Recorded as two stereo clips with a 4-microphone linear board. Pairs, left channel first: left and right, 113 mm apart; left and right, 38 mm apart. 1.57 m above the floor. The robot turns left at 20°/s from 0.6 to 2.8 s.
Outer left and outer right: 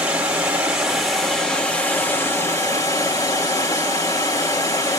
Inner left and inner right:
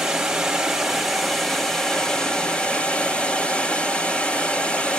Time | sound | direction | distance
0.0 | running water | 170° right | 3 m